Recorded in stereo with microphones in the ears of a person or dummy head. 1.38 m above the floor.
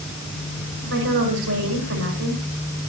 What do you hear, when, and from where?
0.8 s a woman speaking: 85° right, 5.5 m